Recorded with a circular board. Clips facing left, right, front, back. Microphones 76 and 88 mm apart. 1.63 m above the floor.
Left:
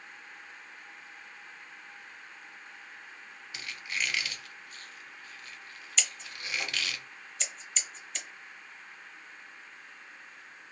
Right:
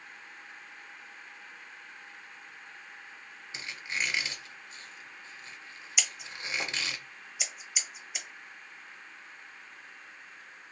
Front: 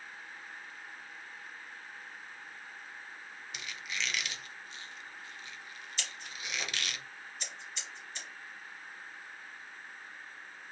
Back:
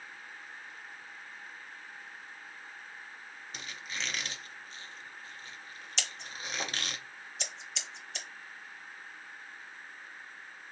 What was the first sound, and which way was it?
A squeak, 145° right.